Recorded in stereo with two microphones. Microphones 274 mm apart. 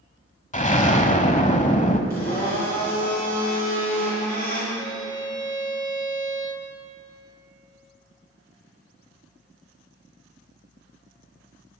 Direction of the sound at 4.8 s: 15° left (ahead or behind).